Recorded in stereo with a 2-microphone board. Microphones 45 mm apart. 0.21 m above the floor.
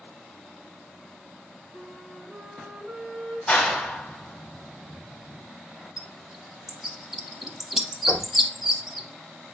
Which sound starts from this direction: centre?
A bird, at 6.0 s.